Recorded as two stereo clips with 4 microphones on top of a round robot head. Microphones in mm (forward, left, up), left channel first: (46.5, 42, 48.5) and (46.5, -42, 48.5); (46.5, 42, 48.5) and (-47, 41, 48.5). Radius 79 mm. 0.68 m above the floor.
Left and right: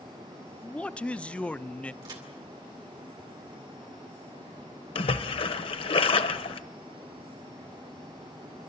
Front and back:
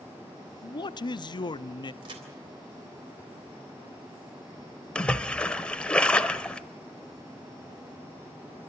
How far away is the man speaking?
About 0.8 m.